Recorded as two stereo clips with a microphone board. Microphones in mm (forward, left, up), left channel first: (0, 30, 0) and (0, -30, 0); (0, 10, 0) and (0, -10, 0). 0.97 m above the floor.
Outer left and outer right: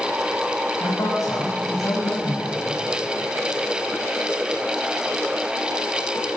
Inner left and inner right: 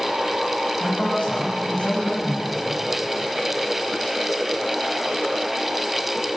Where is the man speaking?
85° left, 7 m.